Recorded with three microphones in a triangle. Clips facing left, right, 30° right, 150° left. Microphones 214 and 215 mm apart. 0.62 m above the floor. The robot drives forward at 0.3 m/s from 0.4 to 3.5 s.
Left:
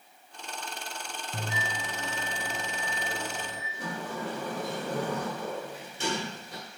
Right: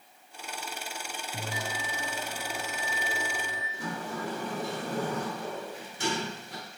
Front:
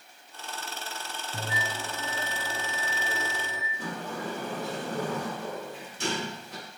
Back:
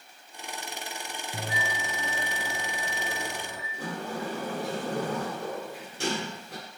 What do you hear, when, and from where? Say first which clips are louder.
1.3 s a bell: even, back 1 dB; 100° left, 1.7 m; by 3.6 s 120° left, 1.9 m
3.7 s a sliding door: even, back 2 dB; 150° left, 1.4 m